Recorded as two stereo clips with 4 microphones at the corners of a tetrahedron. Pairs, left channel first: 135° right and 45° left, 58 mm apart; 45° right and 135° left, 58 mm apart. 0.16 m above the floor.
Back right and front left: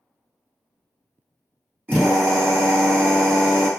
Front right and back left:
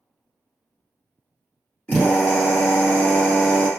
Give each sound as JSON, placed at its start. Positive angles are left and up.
{"t": 1.9, "sound": "a drill", "azimuth_deg": 10, "distance_m": 1.6}